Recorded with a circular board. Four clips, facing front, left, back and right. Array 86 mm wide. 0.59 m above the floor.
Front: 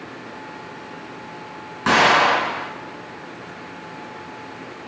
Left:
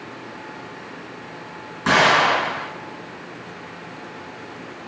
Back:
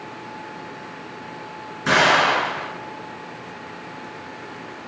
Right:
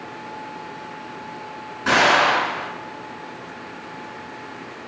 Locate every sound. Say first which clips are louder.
1.9 s an explosion: even, front 2 dB; 20° left, 1.9 m